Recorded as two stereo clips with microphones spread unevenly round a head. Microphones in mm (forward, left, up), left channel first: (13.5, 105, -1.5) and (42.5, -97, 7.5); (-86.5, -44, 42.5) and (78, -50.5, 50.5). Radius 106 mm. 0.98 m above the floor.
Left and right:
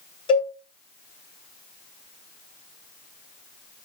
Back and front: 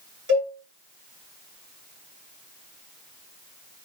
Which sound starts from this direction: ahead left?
A cowbell, at 0.3 s.